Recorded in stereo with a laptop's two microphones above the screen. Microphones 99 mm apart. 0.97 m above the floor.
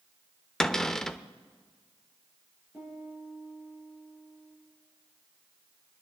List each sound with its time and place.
0.6 s a cupboard door: 5° left (ahead or behind), 0.7 m
2.7 s a piano: 20° right (ahead or behind), 6.5 m